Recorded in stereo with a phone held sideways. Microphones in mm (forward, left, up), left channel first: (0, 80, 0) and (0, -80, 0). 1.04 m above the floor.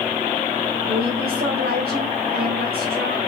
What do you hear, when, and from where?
0.9 s a woman speaking: 85° right, 4 m